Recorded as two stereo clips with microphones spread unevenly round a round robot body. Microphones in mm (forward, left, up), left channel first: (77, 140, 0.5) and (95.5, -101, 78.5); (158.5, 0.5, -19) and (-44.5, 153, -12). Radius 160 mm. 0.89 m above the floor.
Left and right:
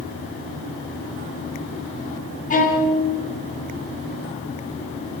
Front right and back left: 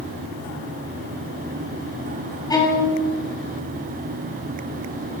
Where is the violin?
40° left, 7.5 m.